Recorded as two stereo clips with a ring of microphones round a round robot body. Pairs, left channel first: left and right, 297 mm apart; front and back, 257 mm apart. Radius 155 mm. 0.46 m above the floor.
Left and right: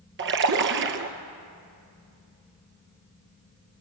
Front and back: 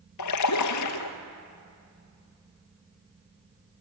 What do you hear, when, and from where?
0.2 s a splash: 35° right, 1.6 m